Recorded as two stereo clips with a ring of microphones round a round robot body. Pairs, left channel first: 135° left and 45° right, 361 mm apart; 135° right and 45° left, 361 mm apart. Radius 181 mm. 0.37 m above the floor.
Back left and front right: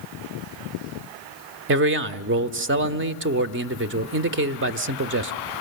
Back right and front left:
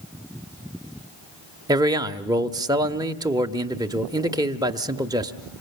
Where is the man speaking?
25° right, 0.9 m.